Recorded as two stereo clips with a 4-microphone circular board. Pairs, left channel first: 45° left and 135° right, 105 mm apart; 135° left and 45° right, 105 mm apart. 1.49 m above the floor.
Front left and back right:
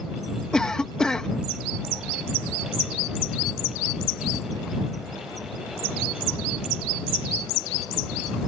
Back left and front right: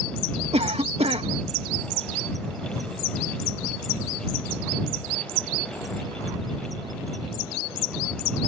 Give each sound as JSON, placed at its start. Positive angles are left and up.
{"t": 0.5, "sound": "a cough", "azimuth_deg": -40}